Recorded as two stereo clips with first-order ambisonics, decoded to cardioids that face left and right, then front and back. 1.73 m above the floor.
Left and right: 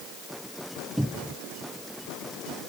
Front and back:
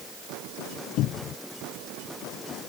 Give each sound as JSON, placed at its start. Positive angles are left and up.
{"t": 1.0, "sound": "a cupboard door", "azimuth_deg": -5}